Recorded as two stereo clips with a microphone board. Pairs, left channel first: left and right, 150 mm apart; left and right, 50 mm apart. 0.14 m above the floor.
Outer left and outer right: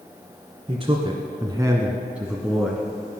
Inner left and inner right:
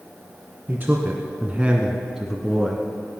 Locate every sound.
0.7 s a man speaking: 40° right (ahead or behind), 1.8 m; by 2.9 s 5° left (ahead or behind), 2 m